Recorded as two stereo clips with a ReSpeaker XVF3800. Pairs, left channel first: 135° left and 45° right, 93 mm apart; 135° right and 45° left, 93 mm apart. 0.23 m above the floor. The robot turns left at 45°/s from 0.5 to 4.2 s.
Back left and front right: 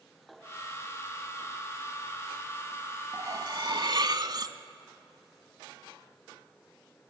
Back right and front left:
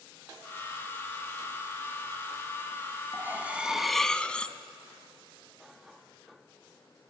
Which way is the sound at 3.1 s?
10° right.